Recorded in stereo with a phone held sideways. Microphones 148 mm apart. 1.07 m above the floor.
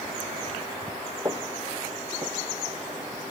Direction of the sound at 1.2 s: 25° right (ahead or behind).